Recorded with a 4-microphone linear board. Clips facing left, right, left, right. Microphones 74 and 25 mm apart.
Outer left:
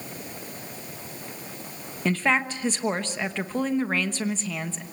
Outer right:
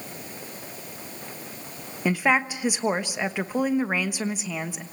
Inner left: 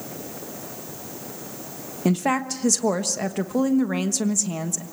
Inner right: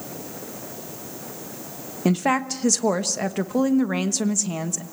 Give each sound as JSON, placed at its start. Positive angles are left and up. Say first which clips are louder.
{"t": 2.0, "sound": "a woman speaking", "louder": "outer right 1 dB, inner right 1 dB", "side_deg": -10, "distance_m": 1.1}